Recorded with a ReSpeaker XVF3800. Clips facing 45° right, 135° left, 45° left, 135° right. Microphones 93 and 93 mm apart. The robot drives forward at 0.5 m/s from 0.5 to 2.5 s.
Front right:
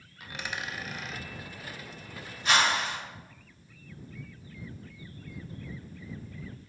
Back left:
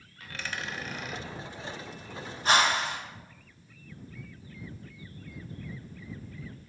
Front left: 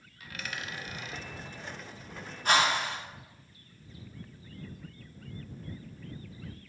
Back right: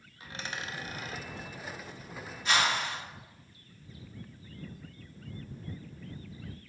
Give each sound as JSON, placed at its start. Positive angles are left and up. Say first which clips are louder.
{"t": 0.2, "sound": "a dropped coin", "louder": "even, back right 1 dB", "azimuth_deg": -105, "distance_m": 0.6}
{"t": 2.5, "sound": "a whoosh", "louder": "back left 1 dB, front left 3 dB", "azimuth_deg": 80, "distance_m": 1.6}